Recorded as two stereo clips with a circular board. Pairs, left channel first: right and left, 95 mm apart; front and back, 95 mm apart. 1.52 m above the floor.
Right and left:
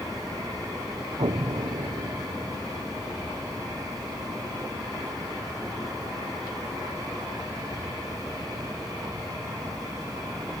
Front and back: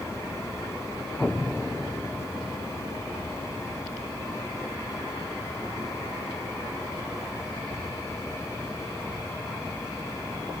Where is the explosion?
80° left, 0.7 m.